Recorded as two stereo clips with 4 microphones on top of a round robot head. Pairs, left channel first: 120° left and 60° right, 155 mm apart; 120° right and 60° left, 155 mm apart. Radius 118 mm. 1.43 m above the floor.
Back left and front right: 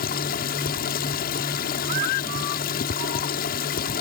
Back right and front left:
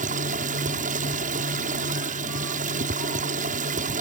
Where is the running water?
95° left.